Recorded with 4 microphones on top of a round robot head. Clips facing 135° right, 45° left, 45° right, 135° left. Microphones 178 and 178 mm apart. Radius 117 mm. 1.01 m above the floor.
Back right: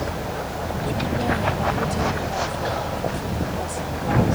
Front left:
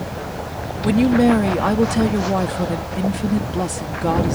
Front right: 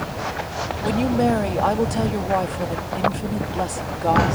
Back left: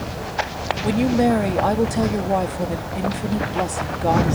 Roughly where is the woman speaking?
Ahead left.